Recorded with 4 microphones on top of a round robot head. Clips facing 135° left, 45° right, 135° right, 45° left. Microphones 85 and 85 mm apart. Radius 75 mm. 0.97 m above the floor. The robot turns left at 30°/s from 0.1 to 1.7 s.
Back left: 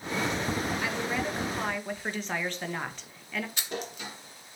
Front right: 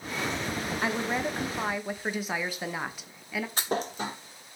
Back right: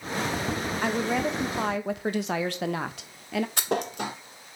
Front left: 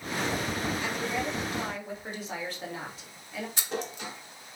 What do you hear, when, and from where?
0.8 s a woman speaking: 100° right, 1.0 m; by 3.5 s 125° right, 1.0 m
3.6 s a thud: 100° right, 0.7 m